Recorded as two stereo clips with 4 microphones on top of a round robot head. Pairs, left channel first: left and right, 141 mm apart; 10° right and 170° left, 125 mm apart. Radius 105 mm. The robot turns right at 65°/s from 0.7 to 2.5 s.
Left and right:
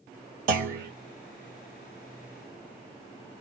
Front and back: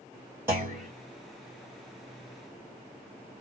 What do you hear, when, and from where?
0.5 s a clunk: 110° right, 2.5 m; by 0.9 s 100° right, 2.5 m